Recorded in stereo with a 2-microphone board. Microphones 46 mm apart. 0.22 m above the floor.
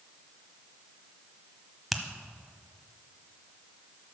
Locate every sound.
1.9 s a finger snap: centre (ahead or behind), 0.8 m